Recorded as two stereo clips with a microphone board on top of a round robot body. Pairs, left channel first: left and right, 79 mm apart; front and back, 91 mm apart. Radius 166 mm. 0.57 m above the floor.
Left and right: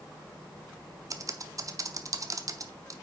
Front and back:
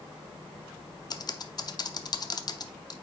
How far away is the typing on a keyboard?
About 0.9 m.